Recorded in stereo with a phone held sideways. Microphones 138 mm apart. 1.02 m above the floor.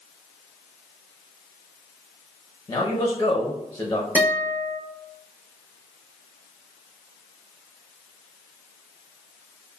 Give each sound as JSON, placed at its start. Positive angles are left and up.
{"t": 2.7, "sound": "a man speaking", "side_deg": 25, "distance_m": 0.6}
{"t": 4.2, "sound": "a guitar", "side_deg": -15, "distance_m": 1.0}